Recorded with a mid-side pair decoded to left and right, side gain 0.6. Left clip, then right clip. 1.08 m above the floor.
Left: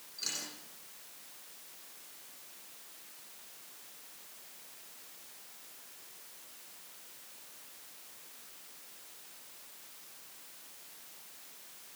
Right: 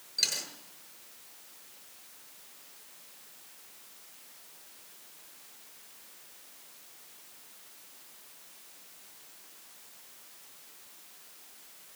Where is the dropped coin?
70° right, 6 m.